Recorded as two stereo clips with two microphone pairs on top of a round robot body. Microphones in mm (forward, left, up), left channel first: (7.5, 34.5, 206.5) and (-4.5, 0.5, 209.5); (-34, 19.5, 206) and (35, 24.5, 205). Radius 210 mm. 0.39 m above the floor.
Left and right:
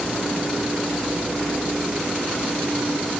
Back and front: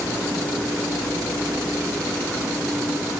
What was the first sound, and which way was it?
Only background noise.